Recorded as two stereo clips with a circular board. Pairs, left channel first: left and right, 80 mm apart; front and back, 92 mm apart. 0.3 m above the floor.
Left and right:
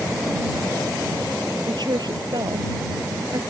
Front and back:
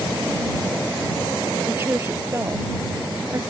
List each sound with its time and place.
1.7 s a woman speaking: 115° right; by 3.4 s 125° right